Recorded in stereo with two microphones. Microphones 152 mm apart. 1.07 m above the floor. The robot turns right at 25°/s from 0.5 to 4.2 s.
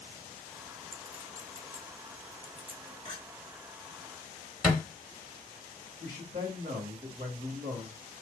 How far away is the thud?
About 1.6 m.